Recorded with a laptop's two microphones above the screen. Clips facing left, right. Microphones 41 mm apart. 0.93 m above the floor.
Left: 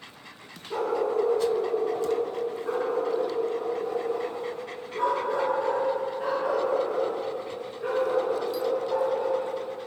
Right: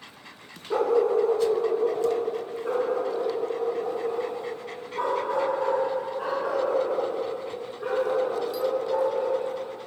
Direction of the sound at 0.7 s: 55° right (ahead or behind).